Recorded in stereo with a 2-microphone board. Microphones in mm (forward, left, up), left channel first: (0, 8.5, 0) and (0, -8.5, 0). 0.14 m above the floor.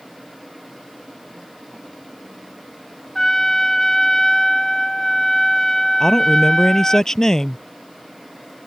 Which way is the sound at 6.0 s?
30° left (ahead or behind).